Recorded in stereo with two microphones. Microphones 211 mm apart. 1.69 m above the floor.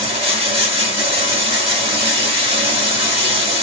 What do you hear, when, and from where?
0.0 s running water: 30° right (ahead or behind), 1.9 m